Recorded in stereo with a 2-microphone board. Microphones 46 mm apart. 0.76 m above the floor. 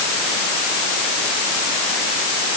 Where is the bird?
No bird in this recording.